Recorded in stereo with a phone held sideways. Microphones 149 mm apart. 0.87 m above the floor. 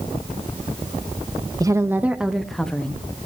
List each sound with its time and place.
1.6 s a woman speaking: 25° right (ahead or behind), 0.7 m; by 3.3 s 10° left (ahead or behind), 1.7 m